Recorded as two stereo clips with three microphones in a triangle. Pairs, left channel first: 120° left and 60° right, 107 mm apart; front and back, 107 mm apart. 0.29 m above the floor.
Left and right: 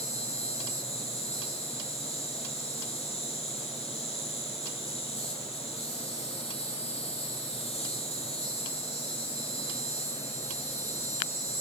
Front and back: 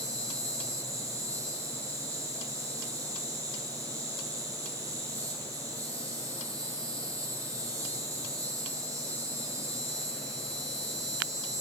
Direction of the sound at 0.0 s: 120° left.